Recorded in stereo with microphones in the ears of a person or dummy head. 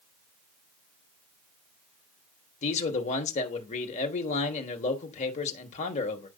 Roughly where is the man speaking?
Left.